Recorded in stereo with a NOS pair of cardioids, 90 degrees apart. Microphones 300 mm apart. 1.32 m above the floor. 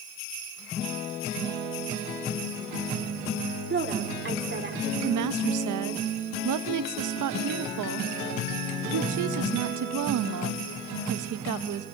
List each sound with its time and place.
3.7 s a woman speaking: 35° right, 5 m
5.0 s a woman speaking: 70° right, 1.5 m